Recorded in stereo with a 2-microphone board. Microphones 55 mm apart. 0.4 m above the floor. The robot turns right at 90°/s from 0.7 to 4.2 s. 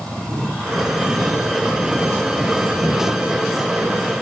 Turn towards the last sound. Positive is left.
No sound to turn to.